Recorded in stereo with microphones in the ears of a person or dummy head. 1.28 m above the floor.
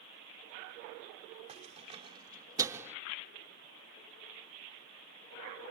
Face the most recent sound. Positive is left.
turn(degrees=-10)  # may be behind; listen again after turning